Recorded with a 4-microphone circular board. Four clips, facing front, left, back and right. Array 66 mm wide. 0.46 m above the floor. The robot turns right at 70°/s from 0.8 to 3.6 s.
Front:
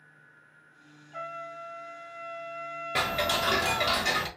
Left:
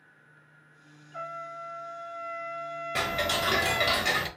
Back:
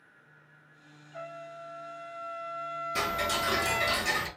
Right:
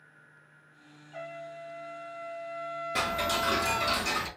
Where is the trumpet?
50° right, 2 m; by 4.0 s 120° left, 2 m.